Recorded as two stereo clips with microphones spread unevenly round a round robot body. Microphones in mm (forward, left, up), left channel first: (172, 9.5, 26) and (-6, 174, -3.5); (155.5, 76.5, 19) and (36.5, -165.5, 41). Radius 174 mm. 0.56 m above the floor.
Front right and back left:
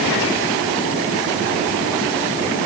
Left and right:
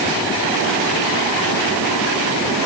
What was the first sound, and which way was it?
Only background noise.